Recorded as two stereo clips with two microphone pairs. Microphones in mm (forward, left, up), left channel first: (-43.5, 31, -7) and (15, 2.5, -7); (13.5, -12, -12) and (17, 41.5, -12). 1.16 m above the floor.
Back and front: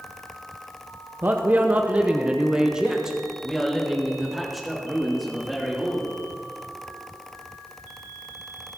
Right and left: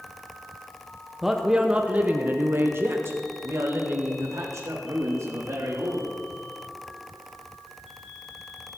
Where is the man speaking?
Straight ahead, 0.8 m; by 6.0 s 70° left, 2.5 m.